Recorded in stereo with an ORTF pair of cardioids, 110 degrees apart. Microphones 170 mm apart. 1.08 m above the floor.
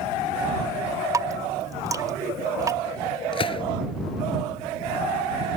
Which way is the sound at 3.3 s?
30° left.